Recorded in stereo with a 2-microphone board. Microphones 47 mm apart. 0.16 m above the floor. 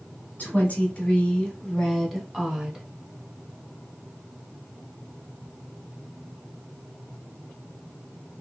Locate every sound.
0.4 s a woman speaking: 35° left (ahead or behind), 1.3 m; by 2.9 s 10° right (ahead or behind), 1.2 m